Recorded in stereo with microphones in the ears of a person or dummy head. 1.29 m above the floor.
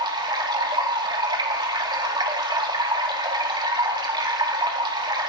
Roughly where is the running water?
Right.